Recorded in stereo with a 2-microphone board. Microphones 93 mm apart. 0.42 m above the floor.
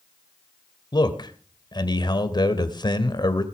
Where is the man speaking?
50° left (ahead or behind), 2.0 m.